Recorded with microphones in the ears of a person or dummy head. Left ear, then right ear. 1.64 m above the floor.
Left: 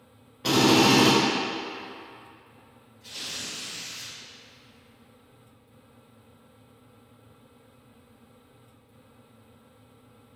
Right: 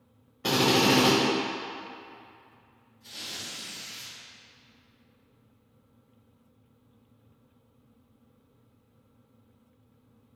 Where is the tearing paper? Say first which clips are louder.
Left 3 dB; centre (ahead or behind), 1.7 m.